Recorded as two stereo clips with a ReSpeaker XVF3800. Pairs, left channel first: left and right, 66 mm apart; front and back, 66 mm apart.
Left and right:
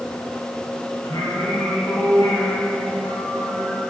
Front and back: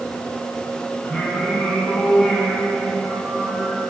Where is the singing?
85° left, 5.5 m.